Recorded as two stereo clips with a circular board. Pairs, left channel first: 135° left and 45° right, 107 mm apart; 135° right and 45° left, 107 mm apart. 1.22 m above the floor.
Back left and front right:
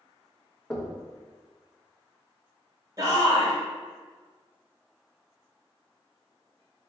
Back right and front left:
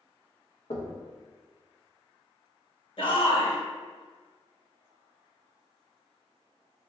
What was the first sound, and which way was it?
Knocking, 140° right.